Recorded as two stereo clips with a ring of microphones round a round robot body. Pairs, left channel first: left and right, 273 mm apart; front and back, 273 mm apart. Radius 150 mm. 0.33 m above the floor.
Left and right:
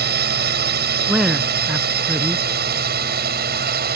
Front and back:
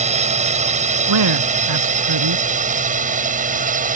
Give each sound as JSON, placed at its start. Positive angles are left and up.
{"t": 0.0, "sound": "a drone", "azimuth_deg": -125}
{"t": 1.1, "sound": "a man speaking", "azimuth_deg": 180}